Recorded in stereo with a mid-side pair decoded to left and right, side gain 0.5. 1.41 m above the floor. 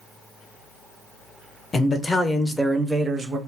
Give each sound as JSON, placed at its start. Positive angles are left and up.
{"t": 1.7, "sound": "a man speaking", "azimuth_deg": 35, "distance_m": 0.9}